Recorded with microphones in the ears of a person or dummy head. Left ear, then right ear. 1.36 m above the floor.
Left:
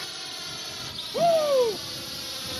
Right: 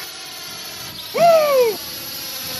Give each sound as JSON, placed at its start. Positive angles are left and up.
{"t": 0.0, "sound": "a drone", "side_deg": -15}
{"t": 1.1, "sound": "a shout", "side_deg": -60}